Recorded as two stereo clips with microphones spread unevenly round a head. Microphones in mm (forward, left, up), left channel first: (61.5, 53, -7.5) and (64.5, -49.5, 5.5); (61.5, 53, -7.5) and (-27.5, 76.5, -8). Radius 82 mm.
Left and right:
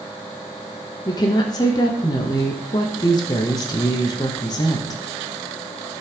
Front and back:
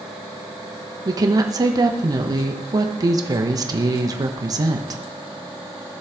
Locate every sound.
1.1 s a woman speaking: 130° left, 1.1 m